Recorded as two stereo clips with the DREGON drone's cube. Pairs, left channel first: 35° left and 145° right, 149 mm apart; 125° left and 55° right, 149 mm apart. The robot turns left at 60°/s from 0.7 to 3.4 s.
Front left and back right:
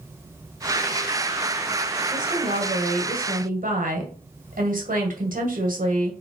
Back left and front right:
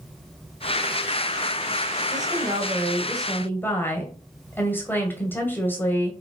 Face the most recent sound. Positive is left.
turn(degrees=-160)